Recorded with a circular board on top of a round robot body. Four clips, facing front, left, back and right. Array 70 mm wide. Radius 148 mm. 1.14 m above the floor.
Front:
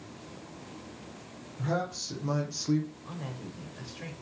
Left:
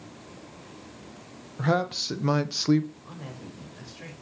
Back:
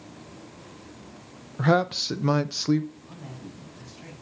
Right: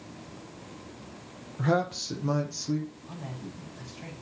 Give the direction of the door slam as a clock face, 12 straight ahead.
No door slam in this recording.